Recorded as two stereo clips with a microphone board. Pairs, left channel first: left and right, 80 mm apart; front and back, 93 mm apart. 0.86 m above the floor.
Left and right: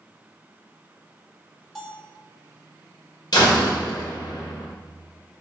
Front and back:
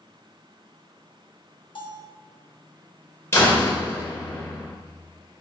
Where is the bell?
5° left, 1.5 m.